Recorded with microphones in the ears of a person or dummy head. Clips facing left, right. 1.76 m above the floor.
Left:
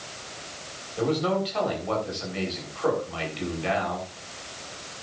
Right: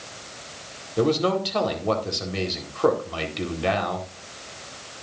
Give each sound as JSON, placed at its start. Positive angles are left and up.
{"t": 1.0, "sound": "a man speaking", "side_deg": -65, "distance_m": 4.0}